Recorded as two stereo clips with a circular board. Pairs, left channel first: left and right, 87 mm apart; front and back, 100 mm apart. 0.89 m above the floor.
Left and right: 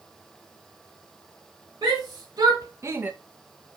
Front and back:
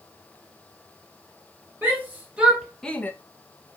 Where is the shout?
110° right, 2 m; by 3.1 s 40° right, 0.9 m.